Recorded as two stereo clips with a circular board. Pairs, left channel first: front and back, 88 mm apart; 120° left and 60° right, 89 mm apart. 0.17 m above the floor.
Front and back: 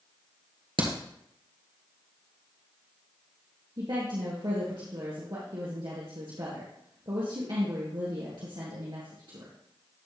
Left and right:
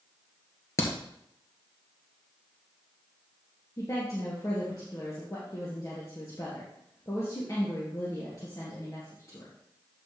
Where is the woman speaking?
165° left, 2.5 m.